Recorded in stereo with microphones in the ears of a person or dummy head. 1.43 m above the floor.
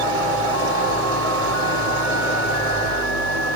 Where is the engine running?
85° right, 3.5 m.